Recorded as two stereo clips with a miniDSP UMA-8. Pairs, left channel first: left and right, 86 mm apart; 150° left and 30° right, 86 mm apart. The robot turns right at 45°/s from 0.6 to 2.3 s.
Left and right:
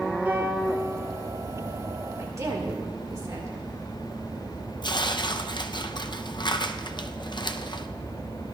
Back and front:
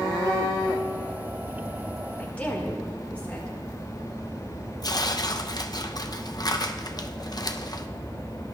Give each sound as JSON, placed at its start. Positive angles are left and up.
{"t": 0.2, "sound": "a piano", "azimuth_deg": -155, "distance_m": 3.0}
{"t": 2.2, "sound": "a woman speaking", "azimuth_deg": -140, "distance_m": 1.6}
{"t": 4.8, "sound": "tearing paper", "azimuth_deg": 115, "distance_m": 0.5}